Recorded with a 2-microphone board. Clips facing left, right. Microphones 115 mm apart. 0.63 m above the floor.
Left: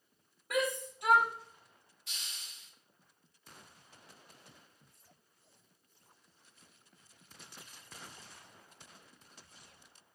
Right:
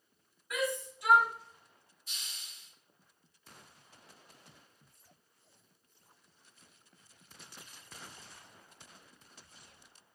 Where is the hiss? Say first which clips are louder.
Left 1 dB; 80° left, 1.9 m.